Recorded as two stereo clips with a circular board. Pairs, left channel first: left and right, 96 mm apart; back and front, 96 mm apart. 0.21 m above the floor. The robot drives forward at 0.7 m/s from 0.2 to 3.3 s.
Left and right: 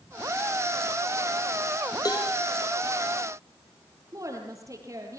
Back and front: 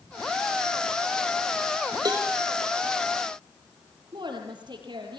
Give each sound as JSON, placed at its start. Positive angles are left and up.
{"t": 2.0, "sound": "a cowbell", "azimuth_deg": 45, "distance_m": 2.5}
{"t": 4.1, "sound": "a woman speaking", "azimuth_deg": -35, "distance_m": 5.5}